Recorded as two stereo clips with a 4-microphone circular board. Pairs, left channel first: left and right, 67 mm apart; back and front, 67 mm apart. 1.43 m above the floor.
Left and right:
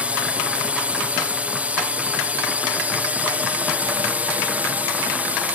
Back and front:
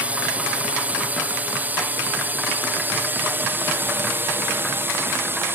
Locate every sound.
0.0 s a drone: 45° right; by 5.6 s 35° right